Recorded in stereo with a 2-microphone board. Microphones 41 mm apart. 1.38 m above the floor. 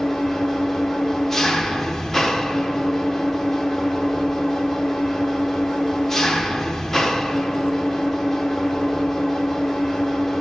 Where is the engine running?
10° left (ahead or behind), 1.1 m.